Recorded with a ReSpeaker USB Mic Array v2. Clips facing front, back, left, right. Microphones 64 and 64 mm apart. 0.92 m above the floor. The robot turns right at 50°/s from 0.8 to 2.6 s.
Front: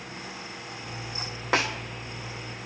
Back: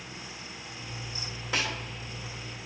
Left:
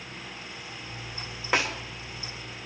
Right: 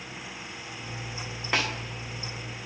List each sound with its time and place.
1.5 s a snare drum: 10° left, 2 m; by 1.7 s 20° left, 2 m